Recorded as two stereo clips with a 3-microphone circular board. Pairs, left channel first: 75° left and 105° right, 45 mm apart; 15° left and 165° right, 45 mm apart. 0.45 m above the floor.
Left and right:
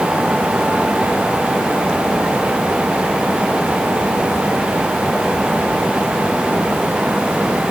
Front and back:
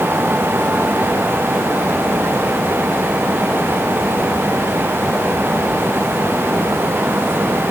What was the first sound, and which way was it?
Only background noise.